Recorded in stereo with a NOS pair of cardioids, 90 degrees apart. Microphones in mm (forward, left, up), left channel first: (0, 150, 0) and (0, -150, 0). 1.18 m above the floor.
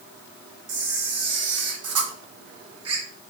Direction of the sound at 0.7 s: 55° right.